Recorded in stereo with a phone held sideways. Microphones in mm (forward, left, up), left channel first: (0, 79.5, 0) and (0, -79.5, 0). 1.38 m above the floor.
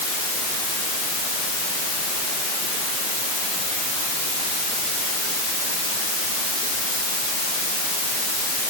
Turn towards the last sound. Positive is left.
No sound to turn to.